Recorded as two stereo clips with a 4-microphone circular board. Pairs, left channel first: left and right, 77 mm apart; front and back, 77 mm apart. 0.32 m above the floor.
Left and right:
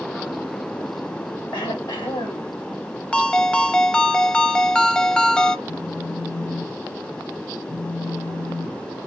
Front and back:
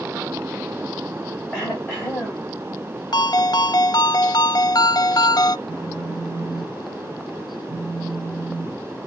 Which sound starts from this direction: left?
Throat clearing, at 1.5 s.